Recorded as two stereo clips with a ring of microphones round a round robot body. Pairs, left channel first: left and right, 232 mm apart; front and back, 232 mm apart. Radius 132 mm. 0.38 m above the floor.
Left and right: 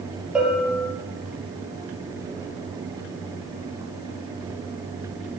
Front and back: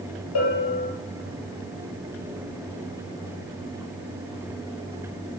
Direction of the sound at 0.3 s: 5° right.